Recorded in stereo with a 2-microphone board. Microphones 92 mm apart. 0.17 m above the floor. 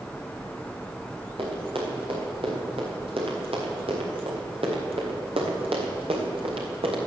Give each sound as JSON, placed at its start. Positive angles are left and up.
{"t": 1.4, "sound": "running footsteps", "side_deg": -75, "distance_m": 7.0}